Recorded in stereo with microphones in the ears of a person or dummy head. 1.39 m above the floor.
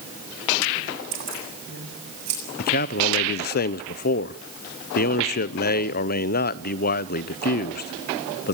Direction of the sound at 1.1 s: 40° right (ahead or behind).